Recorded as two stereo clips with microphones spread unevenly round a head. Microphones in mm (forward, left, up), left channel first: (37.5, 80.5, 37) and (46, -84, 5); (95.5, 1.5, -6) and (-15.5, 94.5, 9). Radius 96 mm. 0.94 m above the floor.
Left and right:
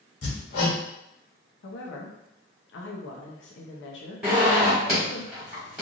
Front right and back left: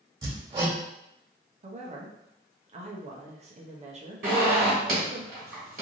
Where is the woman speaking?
100° left, 0.8 m.